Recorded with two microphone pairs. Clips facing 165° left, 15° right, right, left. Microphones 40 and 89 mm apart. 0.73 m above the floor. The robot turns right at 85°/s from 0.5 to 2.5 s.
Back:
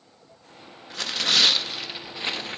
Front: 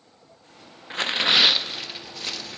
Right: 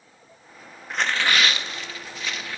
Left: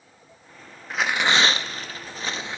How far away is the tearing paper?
About 0.7 m.